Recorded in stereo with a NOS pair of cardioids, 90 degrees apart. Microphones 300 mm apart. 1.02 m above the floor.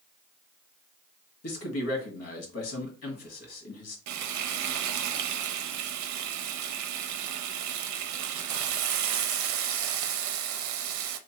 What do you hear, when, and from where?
1.4 s a man speaking: 55° left, 1.5 m
4.1 s frying: 70° right, 0.6 m